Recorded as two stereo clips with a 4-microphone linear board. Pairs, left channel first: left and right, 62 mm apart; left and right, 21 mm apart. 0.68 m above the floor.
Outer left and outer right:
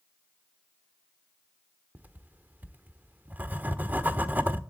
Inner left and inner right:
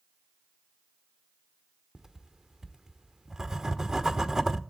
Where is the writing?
30° right (ahead or behind), 1.3 m.